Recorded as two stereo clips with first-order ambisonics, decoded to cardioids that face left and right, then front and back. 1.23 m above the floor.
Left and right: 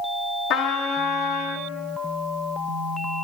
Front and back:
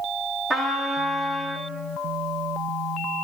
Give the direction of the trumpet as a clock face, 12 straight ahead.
9 o'clock.